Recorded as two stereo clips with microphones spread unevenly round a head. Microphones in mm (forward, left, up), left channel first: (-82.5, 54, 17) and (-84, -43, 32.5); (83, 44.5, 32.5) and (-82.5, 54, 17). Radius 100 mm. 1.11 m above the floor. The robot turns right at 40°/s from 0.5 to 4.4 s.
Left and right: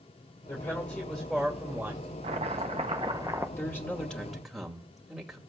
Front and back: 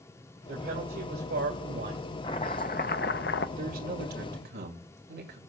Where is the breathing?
I don't hear breathing.